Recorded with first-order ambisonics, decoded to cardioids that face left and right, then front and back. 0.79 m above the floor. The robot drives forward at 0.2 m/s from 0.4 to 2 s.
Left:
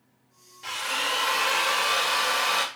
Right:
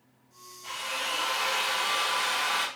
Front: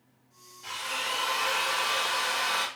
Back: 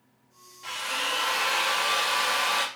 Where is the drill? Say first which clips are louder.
Left 5 dB, back 3 dB; 105° left, 0.7 m; by 2.7 s 125° left, 0.8 m.